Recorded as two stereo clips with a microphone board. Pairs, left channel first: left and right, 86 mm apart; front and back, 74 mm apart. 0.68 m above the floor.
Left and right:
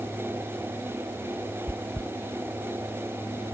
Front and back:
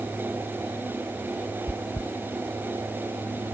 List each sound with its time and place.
1.7 s chewing: 15° left